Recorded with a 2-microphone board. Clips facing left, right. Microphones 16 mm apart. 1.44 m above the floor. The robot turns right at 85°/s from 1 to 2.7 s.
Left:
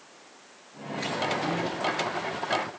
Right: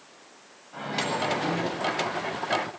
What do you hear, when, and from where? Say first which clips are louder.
0.7 s a microwave: right 3 dB; 80° right, 8 m; by 1.7 s 15° right, 8 m